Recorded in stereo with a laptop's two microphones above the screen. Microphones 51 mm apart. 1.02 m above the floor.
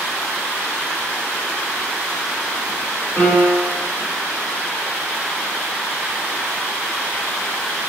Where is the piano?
35° left (ahead or behind), 2 m.